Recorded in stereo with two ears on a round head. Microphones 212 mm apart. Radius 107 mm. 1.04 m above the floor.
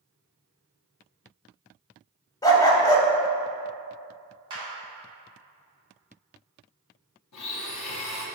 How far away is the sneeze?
No sneeze in this recording.